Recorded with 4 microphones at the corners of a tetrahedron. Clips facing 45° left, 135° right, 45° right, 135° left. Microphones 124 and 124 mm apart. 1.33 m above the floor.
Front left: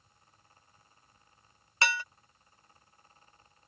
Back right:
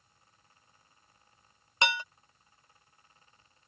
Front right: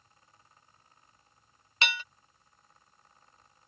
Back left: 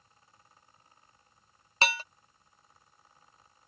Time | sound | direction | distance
1.8 | dishes clattering | 165° left | ?